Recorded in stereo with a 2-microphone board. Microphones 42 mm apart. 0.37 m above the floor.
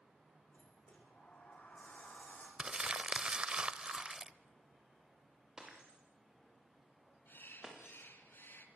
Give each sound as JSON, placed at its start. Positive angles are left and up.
{"t": 0.5, "sound": "a sliding door", "side_deg": 35, "distance_m": 6.5}
{"t": 2.6, "sound": "crumpling", "side_deg": -25, "distance_m": 0.9}
{"t": 5.6, "sound": "breaking glass", "side_deg": -20, "distance_m": 8.5}
{"t": 7.3, "sound": "a bird", "side_deg": 60, "distance_m": 3.5}